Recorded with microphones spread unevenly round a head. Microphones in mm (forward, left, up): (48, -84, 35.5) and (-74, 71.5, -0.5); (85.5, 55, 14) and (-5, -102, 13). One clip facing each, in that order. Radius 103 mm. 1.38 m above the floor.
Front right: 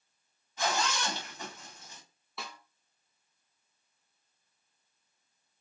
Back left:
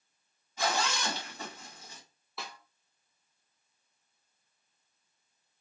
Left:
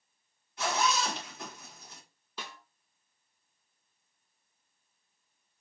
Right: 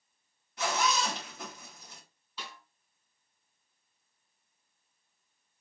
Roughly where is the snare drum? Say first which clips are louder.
Even, left 2 dB; ahead left.